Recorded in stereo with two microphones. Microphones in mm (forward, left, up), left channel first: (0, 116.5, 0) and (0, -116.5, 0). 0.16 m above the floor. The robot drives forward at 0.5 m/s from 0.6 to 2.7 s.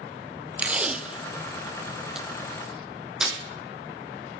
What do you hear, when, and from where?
0.6 s tape being pulled: 5° right (ahead or behind), 0.6 m; by 3.4 s centre (ahead or behind), 1.6 m